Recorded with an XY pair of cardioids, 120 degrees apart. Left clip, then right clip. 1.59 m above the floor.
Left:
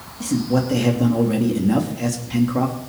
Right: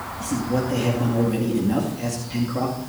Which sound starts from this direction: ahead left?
A man speaking, at 0.2 s.